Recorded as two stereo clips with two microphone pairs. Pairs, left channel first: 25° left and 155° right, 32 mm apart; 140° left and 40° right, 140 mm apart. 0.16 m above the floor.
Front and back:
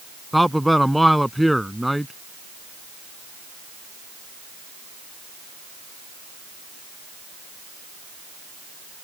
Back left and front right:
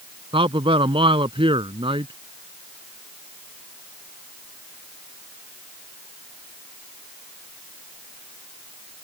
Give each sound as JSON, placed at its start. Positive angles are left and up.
{"t": 0.3, "sound": "a man speaking", "azimuth_deg": -65}